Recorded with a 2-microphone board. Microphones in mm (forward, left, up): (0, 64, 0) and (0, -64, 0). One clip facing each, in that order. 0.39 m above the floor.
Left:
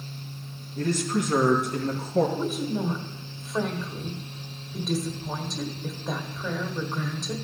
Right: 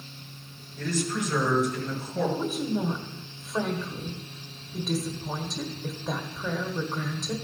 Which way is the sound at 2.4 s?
Centre (ahead or behind).